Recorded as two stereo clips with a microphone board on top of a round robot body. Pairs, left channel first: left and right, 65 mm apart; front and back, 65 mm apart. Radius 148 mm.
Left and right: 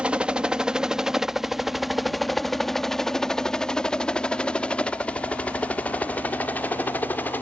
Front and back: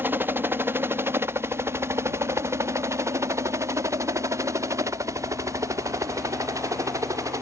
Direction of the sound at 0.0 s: 150° right.